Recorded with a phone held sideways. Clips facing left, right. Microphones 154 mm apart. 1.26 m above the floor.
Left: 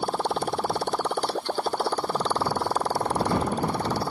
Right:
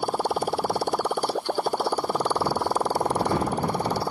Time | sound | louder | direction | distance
0.0 | a motorcycle | right 1 dB | 10° right (ahead or behind) | ?